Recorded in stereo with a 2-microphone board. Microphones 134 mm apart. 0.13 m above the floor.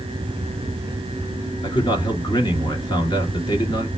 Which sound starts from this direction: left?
A man speaking, at 1.6 s.